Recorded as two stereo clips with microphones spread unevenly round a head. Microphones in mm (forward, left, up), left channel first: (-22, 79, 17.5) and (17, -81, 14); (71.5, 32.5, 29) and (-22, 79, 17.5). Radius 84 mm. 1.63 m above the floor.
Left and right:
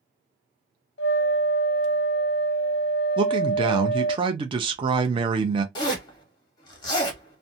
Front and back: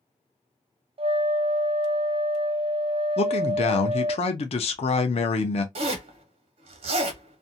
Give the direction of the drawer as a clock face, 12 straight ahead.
I don't hear a drawer.